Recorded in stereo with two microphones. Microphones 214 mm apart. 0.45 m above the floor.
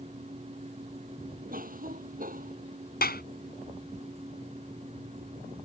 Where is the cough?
40° right (ahead or behind).